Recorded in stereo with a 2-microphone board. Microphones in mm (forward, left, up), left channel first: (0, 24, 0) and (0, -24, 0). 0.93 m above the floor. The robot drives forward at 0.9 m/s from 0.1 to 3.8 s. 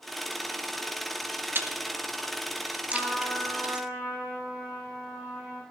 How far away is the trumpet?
About 10 m.